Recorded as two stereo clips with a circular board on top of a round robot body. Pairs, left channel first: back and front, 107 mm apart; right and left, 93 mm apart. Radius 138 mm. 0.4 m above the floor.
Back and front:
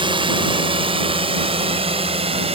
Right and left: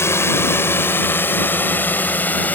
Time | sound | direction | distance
0.0 | a drone | 30° right | ?